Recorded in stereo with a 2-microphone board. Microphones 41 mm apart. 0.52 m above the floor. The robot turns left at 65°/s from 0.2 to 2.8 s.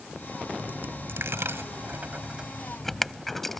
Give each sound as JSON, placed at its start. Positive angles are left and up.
{"t": 0.6, "sound": "a dropped coin", "side_deg": -45}